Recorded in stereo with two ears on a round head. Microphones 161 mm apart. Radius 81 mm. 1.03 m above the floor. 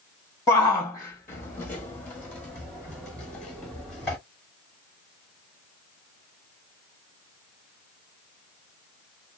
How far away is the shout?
About 1.4 m.